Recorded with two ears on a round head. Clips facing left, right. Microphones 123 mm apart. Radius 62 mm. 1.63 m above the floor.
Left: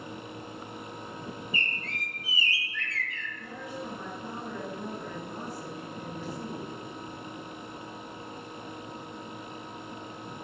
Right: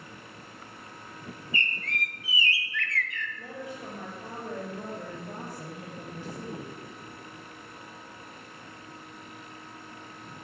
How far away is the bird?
About 1.3 m.